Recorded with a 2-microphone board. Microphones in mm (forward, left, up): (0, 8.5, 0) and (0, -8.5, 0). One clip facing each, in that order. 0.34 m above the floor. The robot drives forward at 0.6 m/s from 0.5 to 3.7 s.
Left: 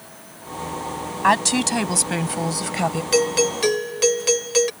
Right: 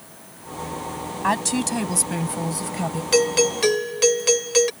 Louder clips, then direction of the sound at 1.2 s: Left 5 dB; 20° left (ahead or behind).